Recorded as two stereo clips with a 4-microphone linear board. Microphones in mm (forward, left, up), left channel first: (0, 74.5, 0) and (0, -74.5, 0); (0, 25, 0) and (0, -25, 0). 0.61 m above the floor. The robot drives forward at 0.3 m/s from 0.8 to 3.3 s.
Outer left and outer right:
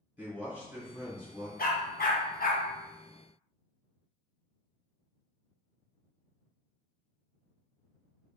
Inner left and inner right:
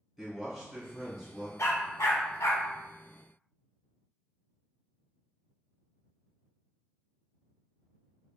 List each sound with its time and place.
0.2 s a man speaking: 10° right (ahead or behind), 1.4 m
1.6 s a dog barking: 80° left, 0.6 m; by 2.6 s 70° left (ahead or behind), 0.6 m